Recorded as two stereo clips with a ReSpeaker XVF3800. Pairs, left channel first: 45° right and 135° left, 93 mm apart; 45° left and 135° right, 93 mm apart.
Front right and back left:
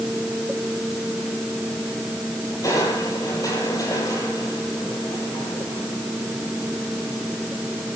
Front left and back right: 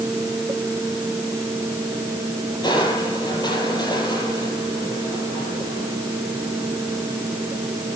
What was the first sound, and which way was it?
Crushing, 5° left.